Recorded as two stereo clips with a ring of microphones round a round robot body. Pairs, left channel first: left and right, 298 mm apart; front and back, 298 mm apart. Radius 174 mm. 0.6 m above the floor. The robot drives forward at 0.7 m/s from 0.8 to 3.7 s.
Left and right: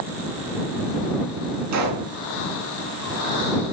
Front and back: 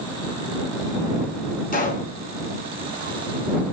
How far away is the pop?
About 3.5 m.